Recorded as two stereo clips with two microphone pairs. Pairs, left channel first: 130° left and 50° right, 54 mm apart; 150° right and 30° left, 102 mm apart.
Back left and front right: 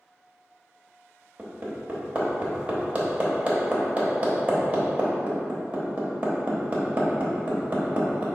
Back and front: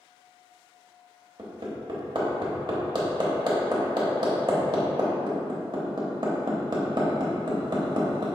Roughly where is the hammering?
Ahead.